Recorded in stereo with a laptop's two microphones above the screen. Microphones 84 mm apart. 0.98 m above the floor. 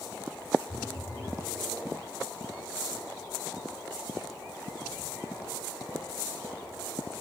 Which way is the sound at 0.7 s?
35° left (ahead or behind).